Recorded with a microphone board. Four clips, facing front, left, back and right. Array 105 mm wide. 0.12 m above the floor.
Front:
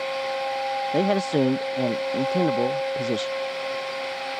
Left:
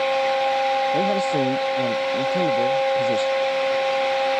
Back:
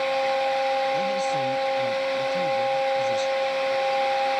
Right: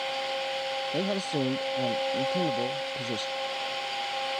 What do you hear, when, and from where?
0.9 s a man speaking: 15° left